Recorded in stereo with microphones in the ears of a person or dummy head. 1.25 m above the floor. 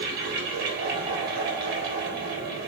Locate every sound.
0.0 s a fan: 45° right (ahead or behind), 1.5 m